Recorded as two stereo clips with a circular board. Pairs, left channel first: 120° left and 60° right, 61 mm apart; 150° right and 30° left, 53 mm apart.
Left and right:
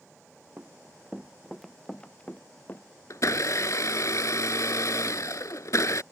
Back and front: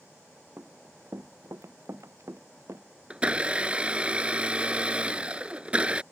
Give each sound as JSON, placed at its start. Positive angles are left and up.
{"t": 0.6, "sound": "running footsteps", "azimuth_deg": -10}
{"t": 3.1, "sound": "a blender", "azimuth_deg": 95}